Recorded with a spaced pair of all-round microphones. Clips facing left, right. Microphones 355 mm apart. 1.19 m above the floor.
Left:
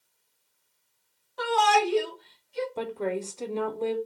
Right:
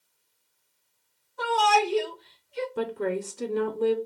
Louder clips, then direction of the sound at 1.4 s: Even; 85° left.